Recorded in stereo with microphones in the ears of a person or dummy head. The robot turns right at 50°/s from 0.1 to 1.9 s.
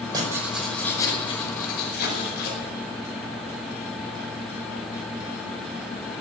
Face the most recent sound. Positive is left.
turn(degrees=65)